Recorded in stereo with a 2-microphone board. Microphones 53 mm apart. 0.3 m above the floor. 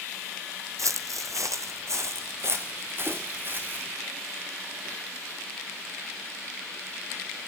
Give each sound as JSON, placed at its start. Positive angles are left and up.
{"t": 0.8, "sound": "footsteps", "side_deg": -65, "distance_m": 0.8}